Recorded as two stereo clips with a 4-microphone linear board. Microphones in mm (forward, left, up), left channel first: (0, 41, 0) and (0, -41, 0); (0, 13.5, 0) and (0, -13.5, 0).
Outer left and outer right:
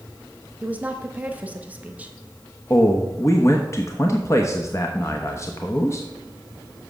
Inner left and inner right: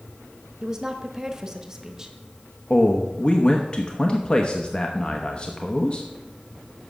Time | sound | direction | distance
0.6 | a woman speaking | 20° right (ahead or behind) | 0.9 m
2.7 | a man speaking | 40° left (ahead or behind) | 0.9 m